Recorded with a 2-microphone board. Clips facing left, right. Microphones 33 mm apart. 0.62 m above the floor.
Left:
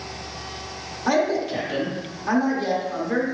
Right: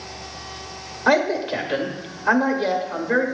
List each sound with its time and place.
1.1 s a man speaking: 25° right (ahead or behind), 1.7 m